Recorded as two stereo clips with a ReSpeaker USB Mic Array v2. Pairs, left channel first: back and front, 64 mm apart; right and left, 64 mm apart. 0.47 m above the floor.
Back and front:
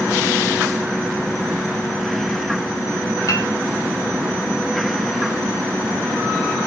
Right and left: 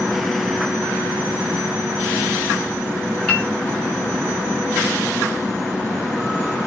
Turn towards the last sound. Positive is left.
turn(degrees=-165)